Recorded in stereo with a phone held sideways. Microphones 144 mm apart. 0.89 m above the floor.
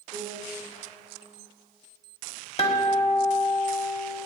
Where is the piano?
70° right (ahead or behind), 2 m.